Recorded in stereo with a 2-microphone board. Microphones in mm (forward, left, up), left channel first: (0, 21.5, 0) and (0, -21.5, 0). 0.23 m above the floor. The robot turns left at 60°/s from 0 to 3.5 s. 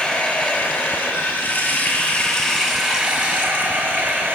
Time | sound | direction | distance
0.0 | running water | 160° left | 3 m